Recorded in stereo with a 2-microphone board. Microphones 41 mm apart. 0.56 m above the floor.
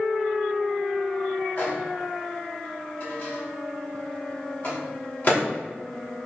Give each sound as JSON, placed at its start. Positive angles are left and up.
{"t": 1.6, "sound": "a microwave", "side_deg": 40, "distance_m": 0.9}